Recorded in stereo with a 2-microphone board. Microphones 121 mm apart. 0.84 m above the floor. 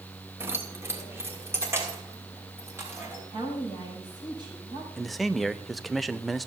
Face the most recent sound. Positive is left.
turn(degrees=0)  # may be behind; listen again after turning